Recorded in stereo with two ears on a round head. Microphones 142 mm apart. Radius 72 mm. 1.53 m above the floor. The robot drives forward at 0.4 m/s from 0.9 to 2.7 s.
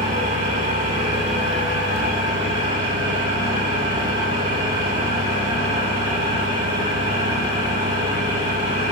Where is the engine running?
50° right (ahead or behind), 4.5 m; by 8.9 s 45° right (ahead or behind), 5 m.